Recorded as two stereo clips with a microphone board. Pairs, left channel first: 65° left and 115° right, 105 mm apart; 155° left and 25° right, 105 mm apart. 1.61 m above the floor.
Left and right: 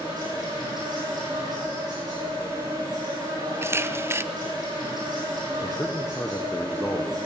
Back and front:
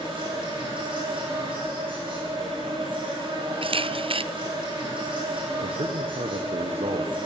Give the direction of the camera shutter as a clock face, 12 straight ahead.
2 o'clock.